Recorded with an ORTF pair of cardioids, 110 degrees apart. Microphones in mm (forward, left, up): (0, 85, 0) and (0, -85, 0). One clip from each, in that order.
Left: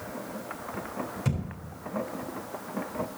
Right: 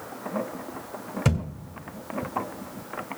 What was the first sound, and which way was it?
A thud, 50° right.